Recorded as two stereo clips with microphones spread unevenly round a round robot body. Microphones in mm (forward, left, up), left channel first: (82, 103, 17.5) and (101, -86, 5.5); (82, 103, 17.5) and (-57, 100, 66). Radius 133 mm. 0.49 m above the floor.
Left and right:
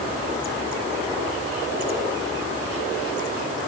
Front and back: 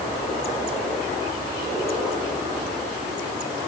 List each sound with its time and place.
Only background noise.